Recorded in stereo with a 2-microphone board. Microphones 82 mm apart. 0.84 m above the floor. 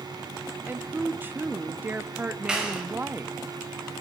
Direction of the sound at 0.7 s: 25° right (ahead or behind).